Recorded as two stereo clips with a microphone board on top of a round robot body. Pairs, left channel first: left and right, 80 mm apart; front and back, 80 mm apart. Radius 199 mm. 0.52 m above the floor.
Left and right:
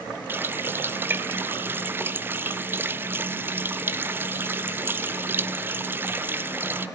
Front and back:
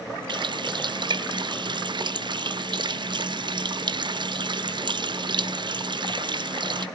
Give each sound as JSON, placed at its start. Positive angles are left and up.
{"t": 0.3, "sound": "a running tap", "azimuth_deg": -155, "distance_m": 0.7}